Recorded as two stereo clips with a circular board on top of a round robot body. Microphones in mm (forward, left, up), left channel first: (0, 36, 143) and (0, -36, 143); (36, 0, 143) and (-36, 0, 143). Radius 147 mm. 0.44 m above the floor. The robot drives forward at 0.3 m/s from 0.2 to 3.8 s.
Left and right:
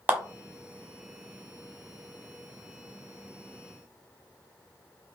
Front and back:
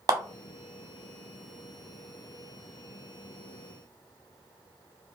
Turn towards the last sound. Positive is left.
turn(degrees=-170)